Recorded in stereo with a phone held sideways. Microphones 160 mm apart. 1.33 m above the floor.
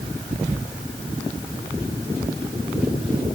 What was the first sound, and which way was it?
Only background noise.